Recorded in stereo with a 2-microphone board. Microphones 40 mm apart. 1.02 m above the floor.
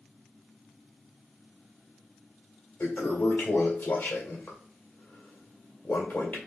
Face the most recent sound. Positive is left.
turn(degrees=50)  # may be behind; listen again after turning